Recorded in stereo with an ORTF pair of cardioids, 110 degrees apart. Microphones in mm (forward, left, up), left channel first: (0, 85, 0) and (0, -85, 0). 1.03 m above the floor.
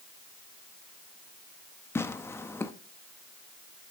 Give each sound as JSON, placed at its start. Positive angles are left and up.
{"t": 1.9, "sound": "tearing paper", "azimuth_deg": 15, "distance_m": 0.8}